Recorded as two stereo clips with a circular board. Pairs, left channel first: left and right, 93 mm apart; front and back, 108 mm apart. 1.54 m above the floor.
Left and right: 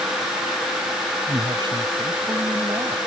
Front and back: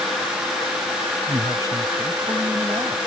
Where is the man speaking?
125° right.